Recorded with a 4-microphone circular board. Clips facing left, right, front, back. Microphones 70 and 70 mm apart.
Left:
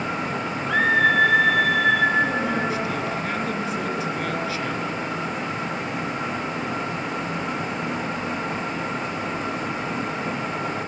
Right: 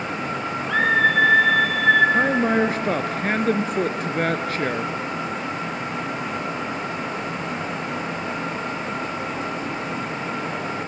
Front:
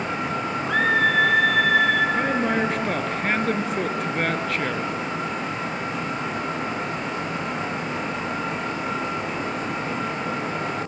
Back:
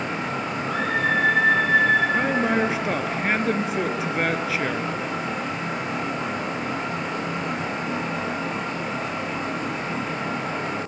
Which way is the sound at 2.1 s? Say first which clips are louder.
Right 3 dB, back 1 dB; 95° right.